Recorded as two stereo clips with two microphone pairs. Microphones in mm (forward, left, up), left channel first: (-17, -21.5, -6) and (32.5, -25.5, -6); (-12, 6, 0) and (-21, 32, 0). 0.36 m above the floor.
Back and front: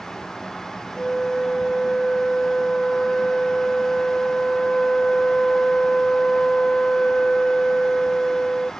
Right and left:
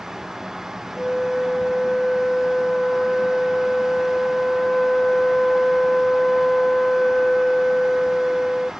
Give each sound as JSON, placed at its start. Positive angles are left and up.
{"t": 1.0, "sound": "a flute", "azimuth_deg": -120}